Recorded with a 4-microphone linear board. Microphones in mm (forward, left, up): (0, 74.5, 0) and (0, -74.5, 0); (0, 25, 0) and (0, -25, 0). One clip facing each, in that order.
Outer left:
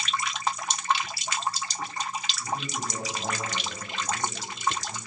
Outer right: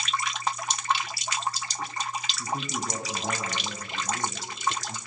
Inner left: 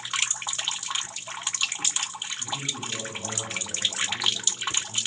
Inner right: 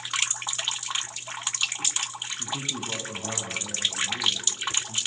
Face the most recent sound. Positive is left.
turn(degrees=-50)  # may be behind; listen again after turning